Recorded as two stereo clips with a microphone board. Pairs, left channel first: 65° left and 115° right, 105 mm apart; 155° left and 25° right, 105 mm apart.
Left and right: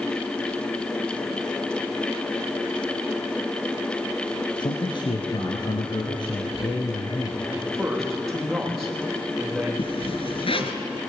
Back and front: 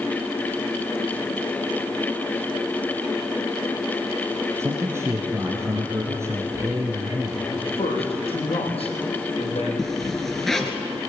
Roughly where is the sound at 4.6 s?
Ahead left.